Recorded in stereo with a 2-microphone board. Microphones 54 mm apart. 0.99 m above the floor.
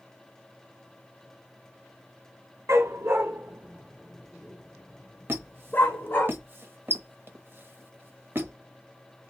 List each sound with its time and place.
2.7 s a dog barking: 55° right (ahead or behind), 0.9 m; by 6.3 s 40° left (ahead or behind), 1.4 m
5.3 s a squeak: 35° right (ahead or behind), 0.9 m